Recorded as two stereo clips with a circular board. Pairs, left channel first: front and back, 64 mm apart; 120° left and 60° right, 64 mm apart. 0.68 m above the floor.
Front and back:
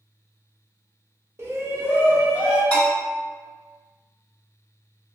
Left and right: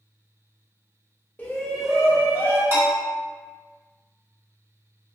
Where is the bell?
70° right, 1.6 m.